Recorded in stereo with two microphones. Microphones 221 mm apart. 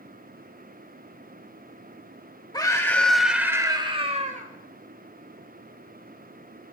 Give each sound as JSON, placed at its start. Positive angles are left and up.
{"t": 2.5, "sound": "a scream", "side_deg": 20, "distance_m": 1.2}